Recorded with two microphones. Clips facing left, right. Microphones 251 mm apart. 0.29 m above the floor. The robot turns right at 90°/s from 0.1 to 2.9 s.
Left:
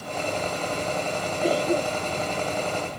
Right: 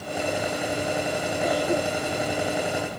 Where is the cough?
35° left (ahead or behind); by 2.3 s 40° right (ahead or behind).